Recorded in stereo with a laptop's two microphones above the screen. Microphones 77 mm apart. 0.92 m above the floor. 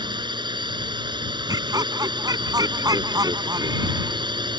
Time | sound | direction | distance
0.0 | a drone | 80° right | ?
1.5 | laughter | 55° right (ahead or behind) | ?